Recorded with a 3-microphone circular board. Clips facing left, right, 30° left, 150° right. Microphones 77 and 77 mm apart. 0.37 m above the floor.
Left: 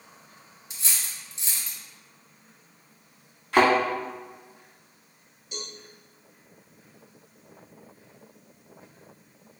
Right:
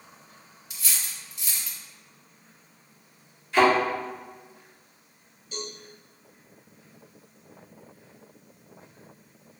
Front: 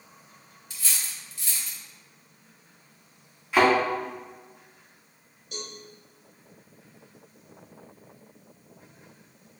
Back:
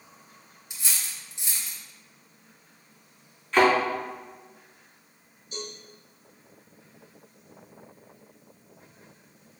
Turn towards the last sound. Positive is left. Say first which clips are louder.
# right 3 dB, back 2 dB
turn(degrees=15)